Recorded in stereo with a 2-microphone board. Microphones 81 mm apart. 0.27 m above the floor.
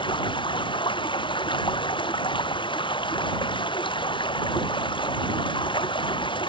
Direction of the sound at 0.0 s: 80° left.